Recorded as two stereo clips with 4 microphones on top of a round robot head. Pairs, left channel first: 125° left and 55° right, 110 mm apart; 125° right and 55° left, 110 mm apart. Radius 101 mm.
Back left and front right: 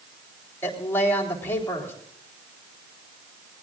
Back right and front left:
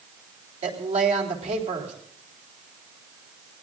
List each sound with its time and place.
0.6 s a woman speaking: 50° left, 4 m